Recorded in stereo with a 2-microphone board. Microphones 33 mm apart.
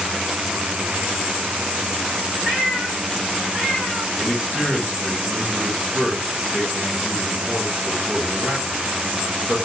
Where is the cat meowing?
60° right (ahead or behind), 3 m; by 4.1 s 20° right (ahead or behind), 2 m.